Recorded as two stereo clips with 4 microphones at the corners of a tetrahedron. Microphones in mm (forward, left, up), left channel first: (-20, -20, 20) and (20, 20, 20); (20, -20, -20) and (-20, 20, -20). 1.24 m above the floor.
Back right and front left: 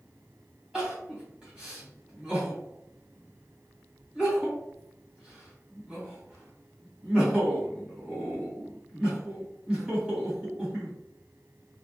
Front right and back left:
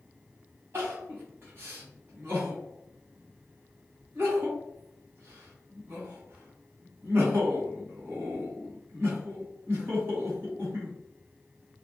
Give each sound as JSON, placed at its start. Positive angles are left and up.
{"t": 0.7, "sound": "crying", "azimuth_deg": 115, "distance_m": 1.4}